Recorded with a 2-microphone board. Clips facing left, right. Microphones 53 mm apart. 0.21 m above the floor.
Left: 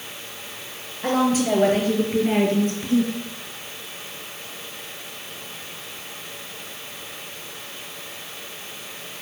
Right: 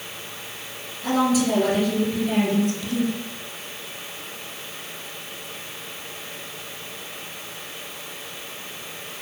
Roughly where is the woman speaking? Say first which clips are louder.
Even; left.